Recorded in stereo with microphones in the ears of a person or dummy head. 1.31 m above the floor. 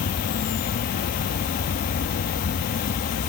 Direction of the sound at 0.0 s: 45° left (ahead or behind).